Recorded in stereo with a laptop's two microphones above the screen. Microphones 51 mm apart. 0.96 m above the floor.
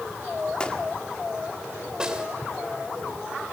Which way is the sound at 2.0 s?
15° right (ahead or behind).